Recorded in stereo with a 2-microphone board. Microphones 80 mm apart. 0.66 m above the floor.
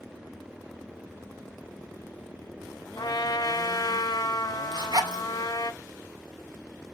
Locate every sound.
3.0 s a trumpet: 60° left (ahead or behind), 0.9 m
4.7 s a zipper: 65° right (ahead or behind), 1.9 m